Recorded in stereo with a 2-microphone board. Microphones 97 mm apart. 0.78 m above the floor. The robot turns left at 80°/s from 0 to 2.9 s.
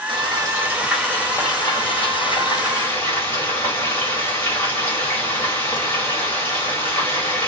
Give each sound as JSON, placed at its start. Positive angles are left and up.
{"t": 0.1, "sound": "frying", "azimuth_deg": -110, "distance_m": 1.1}